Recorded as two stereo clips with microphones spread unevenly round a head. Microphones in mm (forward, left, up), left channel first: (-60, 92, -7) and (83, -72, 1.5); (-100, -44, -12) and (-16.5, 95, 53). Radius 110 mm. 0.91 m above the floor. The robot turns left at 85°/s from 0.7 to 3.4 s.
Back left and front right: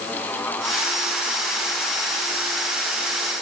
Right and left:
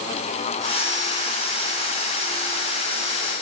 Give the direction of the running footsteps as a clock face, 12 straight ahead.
No running footsteps in this recording.